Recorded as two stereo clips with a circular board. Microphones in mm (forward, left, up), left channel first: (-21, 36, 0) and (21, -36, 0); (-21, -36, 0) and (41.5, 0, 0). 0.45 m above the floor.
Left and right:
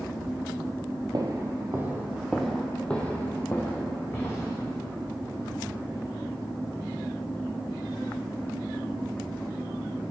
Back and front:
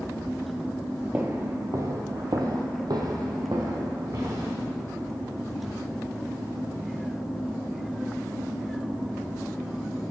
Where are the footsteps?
30° right, 0.8 m; by 4.6 s 65° left, 1.9 m.